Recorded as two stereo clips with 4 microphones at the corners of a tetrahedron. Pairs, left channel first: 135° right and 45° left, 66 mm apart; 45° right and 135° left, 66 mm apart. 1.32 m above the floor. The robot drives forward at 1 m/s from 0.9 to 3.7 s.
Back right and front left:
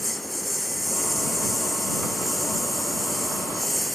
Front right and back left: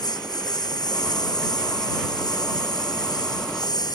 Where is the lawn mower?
45° right.